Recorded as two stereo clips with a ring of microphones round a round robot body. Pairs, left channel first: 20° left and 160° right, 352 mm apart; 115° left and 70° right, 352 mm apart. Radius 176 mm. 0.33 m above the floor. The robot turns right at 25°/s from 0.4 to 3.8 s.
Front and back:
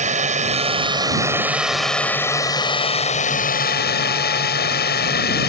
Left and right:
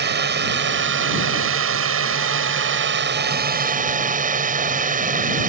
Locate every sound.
0.0 s a drone: 100° right; by 5.5 s 15° right